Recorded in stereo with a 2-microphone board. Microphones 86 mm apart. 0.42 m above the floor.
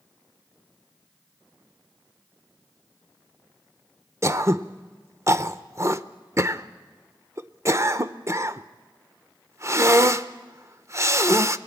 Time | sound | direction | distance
4.2 | throat clearing | 35° right (ahead or behind) | 0.7 m